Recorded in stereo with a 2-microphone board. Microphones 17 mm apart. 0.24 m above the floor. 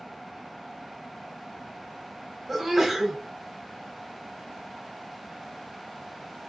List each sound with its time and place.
2.5 s a sneeze: 5° right (ahead or behind), 1.1 m